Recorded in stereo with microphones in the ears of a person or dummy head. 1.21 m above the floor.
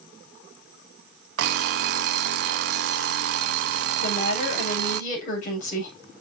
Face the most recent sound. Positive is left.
turn(degrees=45)  # may be behind; listen again after turning